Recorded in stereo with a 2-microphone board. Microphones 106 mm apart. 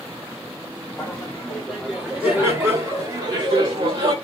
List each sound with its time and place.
1.0 s laughter: 15° left (ahead or behind), 1.3 m; by 4.1 s 50° right (ahead or behind), 1.5 m